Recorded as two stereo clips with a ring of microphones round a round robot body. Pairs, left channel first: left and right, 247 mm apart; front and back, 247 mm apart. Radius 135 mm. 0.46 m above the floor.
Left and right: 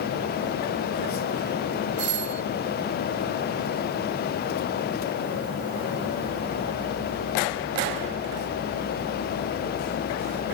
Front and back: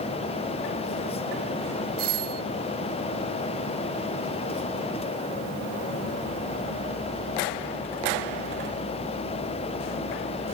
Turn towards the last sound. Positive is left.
turn(degrees=-130)